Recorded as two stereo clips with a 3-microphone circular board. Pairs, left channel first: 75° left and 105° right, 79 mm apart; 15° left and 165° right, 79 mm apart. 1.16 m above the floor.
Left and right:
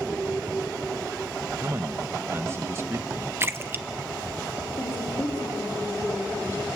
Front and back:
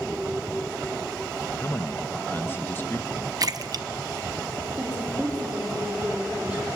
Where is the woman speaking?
115° left, 4 m.